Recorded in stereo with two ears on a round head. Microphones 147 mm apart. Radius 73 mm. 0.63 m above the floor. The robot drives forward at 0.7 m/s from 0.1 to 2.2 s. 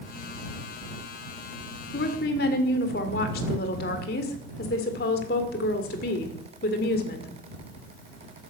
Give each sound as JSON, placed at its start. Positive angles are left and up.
{"t": 1.9, "sound": "a woman speaking", "side_deg": 65, "distance_m": 2.0}